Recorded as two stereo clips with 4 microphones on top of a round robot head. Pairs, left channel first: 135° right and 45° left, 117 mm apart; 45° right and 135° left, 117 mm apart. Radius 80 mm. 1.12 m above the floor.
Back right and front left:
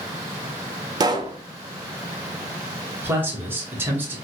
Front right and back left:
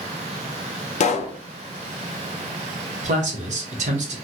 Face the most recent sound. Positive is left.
turn(degrees=115)